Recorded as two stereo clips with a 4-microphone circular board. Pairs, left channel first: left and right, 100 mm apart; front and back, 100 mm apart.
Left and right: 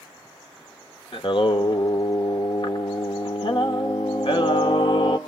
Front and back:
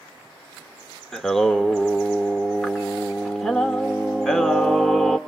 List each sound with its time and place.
1.1 s singing: 85° left, 1.0 m